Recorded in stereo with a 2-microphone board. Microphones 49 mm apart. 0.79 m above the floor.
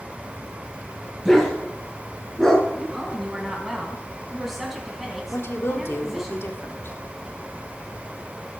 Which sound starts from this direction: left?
A woman speaking, at 5.3 s.